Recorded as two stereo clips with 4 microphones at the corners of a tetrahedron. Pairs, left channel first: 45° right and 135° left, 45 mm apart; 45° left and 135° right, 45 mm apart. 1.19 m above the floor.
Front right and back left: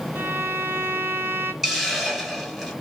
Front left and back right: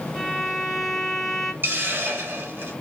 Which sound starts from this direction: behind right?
A hiss, at 1.6 s.